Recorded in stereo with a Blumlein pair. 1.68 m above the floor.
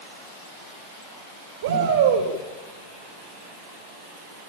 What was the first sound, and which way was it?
A shout, 60° right.